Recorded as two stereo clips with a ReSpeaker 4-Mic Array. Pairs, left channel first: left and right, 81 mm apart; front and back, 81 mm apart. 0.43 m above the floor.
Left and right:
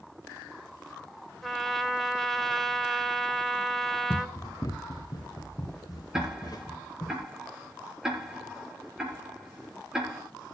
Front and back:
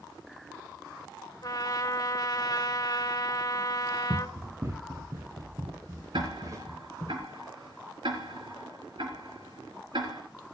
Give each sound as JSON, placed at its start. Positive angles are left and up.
{"t": 1.4, "sound": "a trumpet", "azimuth_deg": 0, "distance_m": 2.0}
{"t": 4.1, "sound": "running footsteps", "azimuth_deg": 125, "distance_m": 1.1}
{"t": 6.1, "sound": "ticking", "azimuth_deg": -170, "distance_m": 4.0}